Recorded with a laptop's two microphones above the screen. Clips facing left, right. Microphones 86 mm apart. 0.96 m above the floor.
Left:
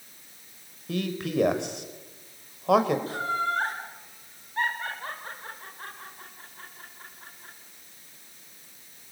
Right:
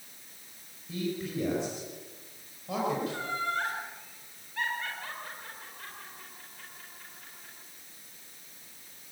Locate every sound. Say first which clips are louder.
0.9 s a man speaking: left 4 dB; 70° left (ahead or behind), 4.5 m
3.1 s laughter: left 5 dB; 35° left (ahead or behind), 4 m